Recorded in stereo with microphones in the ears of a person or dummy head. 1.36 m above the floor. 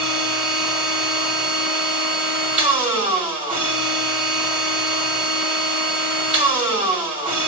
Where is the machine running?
10° right (ahead or behind), 2.5 m.